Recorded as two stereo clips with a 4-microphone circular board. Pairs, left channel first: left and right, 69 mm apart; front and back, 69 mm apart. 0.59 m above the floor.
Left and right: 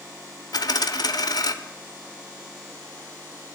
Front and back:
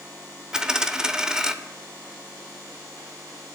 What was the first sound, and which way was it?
A dropped coin, 100° left.